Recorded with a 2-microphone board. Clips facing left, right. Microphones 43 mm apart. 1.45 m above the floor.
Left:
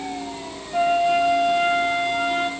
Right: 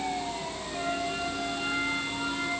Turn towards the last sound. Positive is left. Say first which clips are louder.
# left 14 dB
turn(degrees=65)  # may be behind; listen again after turning